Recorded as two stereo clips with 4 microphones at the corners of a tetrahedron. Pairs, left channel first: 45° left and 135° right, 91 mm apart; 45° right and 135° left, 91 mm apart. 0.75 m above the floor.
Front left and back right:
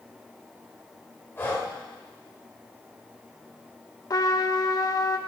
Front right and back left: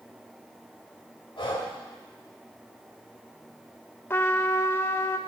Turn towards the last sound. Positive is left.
turn(degrees=15)